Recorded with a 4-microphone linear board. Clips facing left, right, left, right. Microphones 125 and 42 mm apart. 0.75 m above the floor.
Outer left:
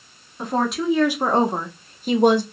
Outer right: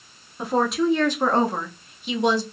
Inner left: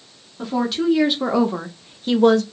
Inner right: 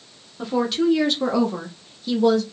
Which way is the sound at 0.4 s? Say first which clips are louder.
Outer right 1 dB, even; 5° right (ahead or behind).